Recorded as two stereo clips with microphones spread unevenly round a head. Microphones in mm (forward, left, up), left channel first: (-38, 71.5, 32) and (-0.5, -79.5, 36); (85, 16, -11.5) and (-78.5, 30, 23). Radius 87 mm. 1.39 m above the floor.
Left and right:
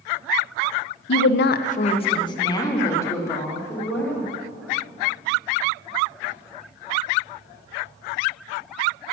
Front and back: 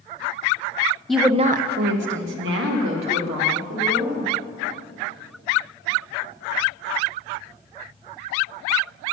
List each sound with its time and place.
1.1 s a woman speaking: 80° left, 0.7 m; by 4.3 s straight behind, 4.5 m